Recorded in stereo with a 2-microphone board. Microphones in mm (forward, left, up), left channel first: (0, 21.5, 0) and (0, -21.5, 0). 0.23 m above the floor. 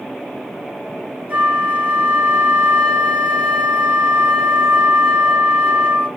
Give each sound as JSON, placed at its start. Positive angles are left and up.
{"t": 1.3, "sound": "a flute", "side_deg": -35, "distance_m": 1.5}